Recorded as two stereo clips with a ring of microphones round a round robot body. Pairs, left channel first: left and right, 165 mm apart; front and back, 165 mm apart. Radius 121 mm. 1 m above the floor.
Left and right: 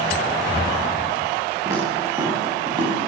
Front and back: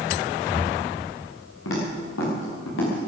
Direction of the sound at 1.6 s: 15° right.